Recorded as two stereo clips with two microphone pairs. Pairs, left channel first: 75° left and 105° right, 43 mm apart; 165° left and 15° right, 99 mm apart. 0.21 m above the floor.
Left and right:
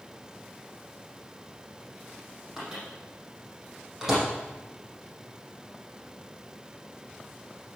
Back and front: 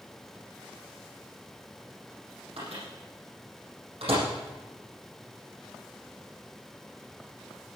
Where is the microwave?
25° right, 7.5 m.